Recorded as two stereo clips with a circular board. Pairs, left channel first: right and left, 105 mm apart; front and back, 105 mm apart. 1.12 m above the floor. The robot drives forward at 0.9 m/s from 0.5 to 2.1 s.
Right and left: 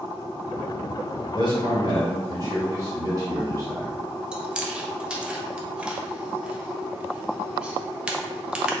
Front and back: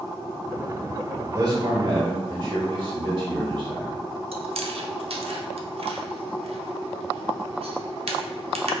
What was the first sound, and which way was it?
A man speaking, 130° left.